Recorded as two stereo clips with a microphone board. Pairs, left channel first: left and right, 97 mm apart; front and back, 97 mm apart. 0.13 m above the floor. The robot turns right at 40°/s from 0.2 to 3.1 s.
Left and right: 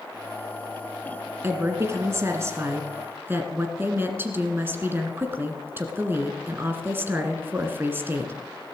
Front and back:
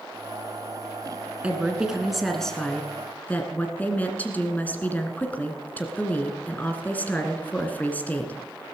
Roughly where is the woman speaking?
Behind right.